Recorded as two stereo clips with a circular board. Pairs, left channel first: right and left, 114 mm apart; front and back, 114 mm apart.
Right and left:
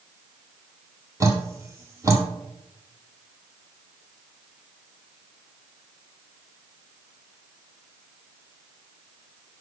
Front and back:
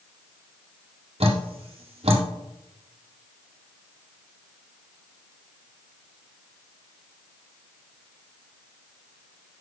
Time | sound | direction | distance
1.2 | dripping | 155° left | 1.3 m